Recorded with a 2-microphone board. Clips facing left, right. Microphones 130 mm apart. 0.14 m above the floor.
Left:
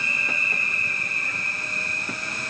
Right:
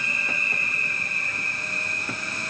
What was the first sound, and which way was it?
Only background noise.